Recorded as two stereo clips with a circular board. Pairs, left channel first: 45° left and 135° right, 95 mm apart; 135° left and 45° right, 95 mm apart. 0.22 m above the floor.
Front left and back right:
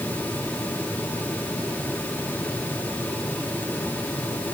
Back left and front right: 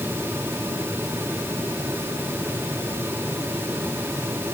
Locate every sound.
Only background noise.